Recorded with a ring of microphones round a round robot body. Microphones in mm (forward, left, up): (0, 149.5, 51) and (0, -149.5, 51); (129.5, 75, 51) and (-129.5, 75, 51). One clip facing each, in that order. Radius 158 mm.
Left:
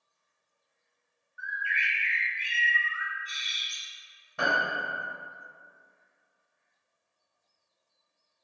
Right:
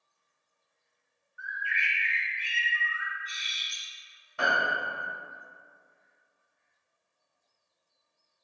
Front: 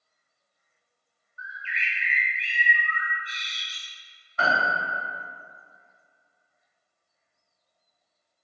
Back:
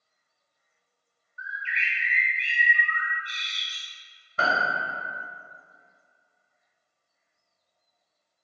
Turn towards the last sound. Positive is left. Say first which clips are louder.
# even, front 1 dB
turn(degrees=130)